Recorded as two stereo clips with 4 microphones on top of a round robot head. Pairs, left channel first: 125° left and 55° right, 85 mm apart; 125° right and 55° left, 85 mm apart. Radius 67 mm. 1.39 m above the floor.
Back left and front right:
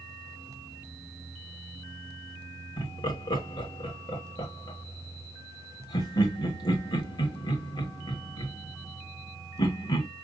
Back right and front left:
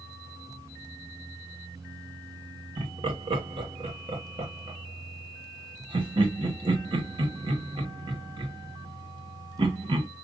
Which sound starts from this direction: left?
Laughter, at 2.8 s.